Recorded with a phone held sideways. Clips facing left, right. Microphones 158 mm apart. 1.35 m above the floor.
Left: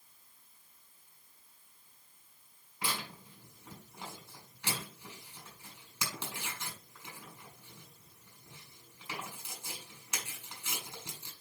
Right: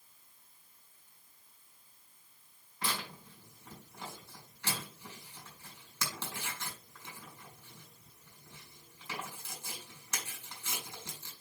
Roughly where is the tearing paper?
Centre.